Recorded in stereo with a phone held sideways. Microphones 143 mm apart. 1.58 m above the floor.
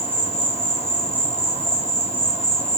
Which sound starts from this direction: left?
An insect, at 0.0 s.